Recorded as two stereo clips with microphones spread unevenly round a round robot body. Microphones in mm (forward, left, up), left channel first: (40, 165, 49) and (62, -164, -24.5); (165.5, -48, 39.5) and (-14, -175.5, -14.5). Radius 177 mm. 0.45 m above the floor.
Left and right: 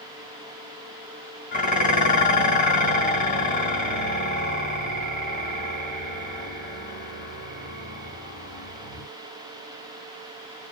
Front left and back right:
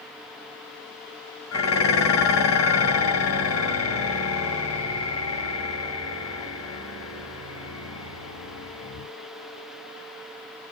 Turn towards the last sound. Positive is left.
turn(degrees=20)